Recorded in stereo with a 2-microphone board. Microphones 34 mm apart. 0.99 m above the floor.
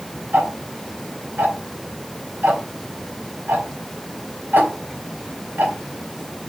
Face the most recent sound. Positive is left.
turn(degrees=-65)  # may be behind; listen again after turning